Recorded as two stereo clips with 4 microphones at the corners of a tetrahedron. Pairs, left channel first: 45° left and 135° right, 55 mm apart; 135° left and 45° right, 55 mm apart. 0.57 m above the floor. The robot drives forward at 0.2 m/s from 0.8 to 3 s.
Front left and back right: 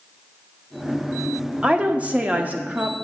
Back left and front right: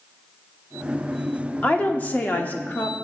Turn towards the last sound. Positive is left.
turn(degrees=175)